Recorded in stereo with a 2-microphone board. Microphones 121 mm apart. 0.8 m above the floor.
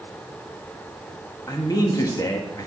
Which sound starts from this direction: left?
A man speaking, at 1.5 s.